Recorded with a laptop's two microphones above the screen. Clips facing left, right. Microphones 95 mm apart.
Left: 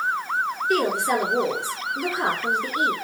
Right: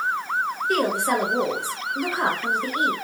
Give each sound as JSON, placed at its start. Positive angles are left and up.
{"t": 0.7, "sound": "a woman speaking", "side_deg": -45, "distance_m": 1.5}